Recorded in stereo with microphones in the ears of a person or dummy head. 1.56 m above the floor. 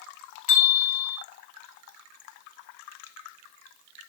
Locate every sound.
0.5 s a bell: 50° left (ahead or behind), 4 m